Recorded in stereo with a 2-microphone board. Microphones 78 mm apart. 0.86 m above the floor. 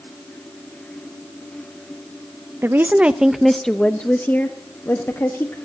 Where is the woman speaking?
30° right (ahead or behind), 0.7 m; by 5.5 s 35° left (ahead or behind), 1.5 m.